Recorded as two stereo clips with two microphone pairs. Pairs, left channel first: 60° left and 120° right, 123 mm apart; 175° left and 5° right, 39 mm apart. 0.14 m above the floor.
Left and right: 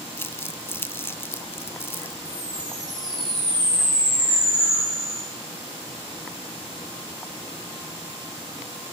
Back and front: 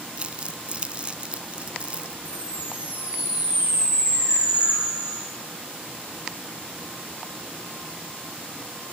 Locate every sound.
0.2 s crumpling: 10° left, 0.5 m
2.2 s a chime: 60° right, 9.5 m